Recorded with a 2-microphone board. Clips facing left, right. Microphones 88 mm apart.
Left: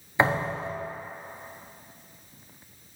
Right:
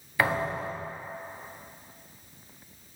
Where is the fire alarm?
No fire alarm in this recording.